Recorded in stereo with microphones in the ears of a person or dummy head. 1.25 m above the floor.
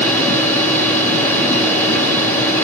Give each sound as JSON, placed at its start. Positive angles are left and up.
{"t": 0.0, "sound": "a machine running", "side_deg": 10, "distance_m": 0.8}